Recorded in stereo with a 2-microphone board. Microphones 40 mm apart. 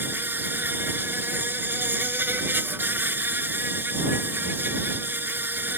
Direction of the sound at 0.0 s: 65° right (ahead or behind).